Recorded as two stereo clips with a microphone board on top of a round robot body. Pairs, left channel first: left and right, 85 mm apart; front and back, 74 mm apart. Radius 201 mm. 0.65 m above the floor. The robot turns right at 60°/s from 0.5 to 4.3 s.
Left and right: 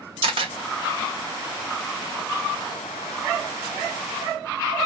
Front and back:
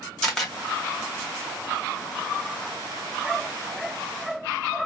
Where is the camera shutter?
85° right, 1.5 m.